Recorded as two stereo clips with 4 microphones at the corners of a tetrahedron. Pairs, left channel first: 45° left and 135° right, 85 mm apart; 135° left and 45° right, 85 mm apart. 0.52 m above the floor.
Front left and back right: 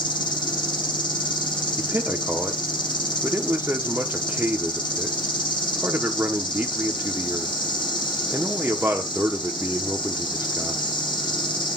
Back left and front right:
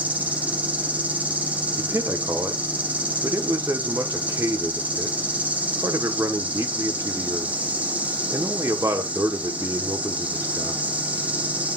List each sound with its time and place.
0.0 s an insect: 25° left, 2 m
1.8 s a man speaking: 75° right, 0.9 m